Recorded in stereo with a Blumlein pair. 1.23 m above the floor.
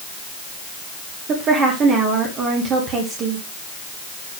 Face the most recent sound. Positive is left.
turn(degrees=-30)